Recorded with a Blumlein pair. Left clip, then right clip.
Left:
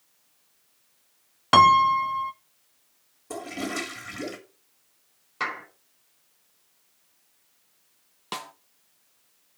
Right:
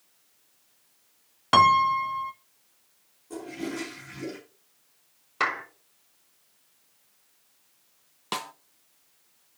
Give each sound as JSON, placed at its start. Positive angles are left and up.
{"t": 1.5, "sound": "a piano", "azimuth_deg": 10, "distance_m": 0.5}
{"t": 3.3, "sound": "a toilet flushing", "azimuth_deg": 35, "distance_m": 2.5}
{"t": 5.4, "sound": "a clap", "azimuth_deg": -15, "distance_m": 4.5}
{"t": 8.3, "sound": "a snare drum", "azimuth_deg": -5, "distance_m": 0.6}